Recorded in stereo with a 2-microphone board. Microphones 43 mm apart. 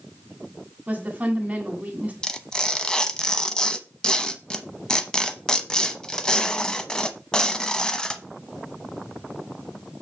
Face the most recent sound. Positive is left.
turn(degrees=15)  # may be behind; listen again after turning